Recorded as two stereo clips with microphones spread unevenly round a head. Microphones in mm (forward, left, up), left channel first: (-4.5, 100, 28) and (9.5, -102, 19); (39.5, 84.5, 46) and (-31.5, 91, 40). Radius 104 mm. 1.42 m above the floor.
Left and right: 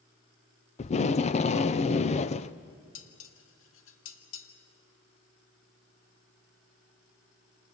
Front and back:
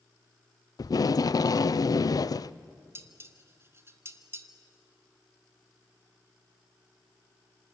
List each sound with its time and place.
0.8 s tape being pulled: 35° left, 0.5 m
3.0 s dishes clattering: 120° left, 1.6 m